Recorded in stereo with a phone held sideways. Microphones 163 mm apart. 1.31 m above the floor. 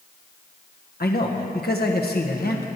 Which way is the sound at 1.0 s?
70° left (ahead or behind).